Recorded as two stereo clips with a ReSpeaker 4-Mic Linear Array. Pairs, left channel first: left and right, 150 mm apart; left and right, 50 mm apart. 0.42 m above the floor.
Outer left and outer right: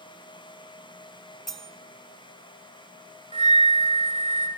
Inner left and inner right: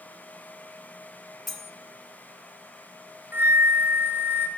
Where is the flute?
45° right (ahead or behind), 1.5 m.